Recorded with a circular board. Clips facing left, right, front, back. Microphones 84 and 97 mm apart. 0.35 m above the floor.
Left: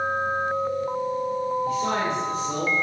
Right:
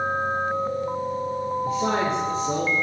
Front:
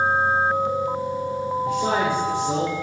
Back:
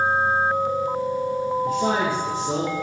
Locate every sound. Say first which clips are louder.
1.6 s a man speaking: right 1 dB, front 2 dB; 140° right, 8.5 m